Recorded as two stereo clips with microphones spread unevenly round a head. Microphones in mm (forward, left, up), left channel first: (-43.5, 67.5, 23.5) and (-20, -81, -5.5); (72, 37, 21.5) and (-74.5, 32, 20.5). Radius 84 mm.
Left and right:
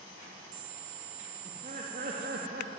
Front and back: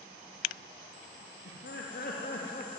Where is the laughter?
25° right, 3 m; by 2.7 s 50° right, 3 m.